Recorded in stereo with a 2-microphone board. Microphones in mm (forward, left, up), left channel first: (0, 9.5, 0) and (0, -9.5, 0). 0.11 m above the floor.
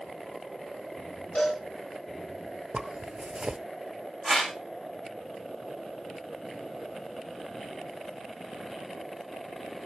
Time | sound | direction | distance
1.4 | a cowbell | 80° left | 6.5 m
2.7 | a zipper | 50° right (ahead or behind) | 0.6 m
4.2 | a whoosh | 20° left (ahead or behind) | 6.5 m